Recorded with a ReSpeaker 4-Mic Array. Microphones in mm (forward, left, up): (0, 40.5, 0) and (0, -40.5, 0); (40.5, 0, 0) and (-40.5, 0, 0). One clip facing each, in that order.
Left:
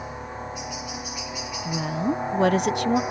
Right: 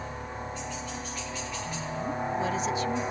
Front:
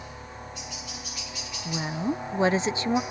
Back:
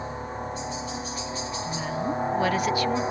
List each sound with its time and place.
0.0 s a helicopter: 160° left
1.6 s a woman speaking: 65° left